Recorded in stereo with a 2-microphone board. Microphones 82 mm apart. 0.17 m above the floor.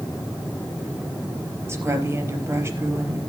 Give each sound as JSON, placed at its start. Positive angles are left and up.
{"t": 1.7, "sound": "a woman speaking", "side_deg": -30, "distance_m": 4.0}